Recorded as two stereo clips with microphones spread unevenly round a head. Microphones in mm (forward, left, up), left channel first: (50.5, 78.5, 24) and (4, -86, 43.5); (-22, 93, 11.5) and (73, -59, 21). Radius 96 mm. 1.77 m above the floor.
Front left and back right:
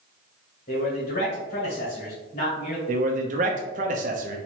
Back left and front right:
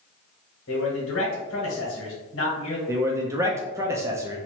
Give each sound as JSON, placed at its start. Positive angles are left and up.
{"t": 0.7, "sound": "a man speaking", "azimuth_deg": 120, "distance_m": 1.9}
{"t": 2.9, "sound": "a man speaking", "azimuth_deg": -125, "distance_m": 0.6}